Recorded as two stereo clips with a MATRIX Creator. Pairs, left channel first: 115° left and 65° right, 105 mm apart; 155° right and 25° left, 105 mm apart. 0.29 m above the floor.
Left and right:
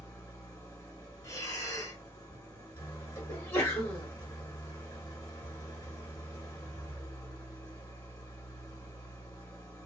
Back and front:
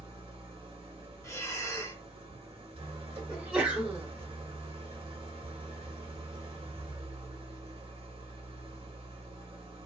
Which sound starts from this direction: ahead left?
An engine running, at 0.0 s.